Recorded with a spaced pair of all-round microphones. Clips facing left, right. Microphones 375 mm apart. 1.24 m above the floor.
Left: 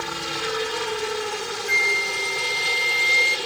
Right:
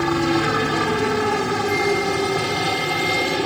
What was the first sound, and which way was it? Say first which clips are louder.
A helicopter: right 13 dB; 70° right (ahead or behind).